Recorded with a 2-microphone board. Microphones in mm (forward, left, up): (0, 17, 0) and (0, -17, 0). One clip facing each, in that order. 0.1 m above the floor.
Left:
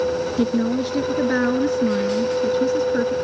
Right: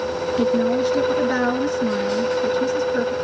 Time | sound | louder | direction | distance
0.4 | a woman speaking | right 4 dB | 10° left (ahead or behind) | 1.5 m